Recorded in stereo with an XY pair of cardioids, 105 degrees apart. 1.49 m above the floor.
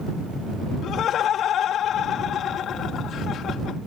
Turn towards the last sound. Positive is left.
turn(degrees=65)